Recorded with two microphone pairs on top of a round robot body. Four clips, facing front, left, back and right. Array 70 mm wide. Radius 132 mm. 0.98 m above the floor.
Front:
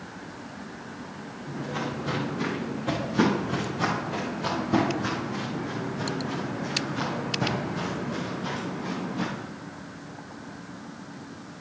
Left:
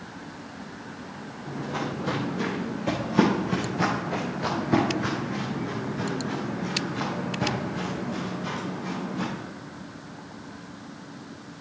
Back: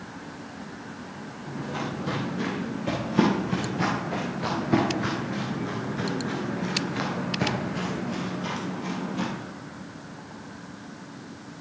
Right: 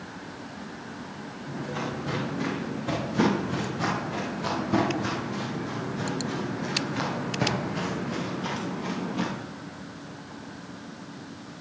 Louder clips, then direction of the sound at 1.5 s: Left 2 dB, even; 95° left.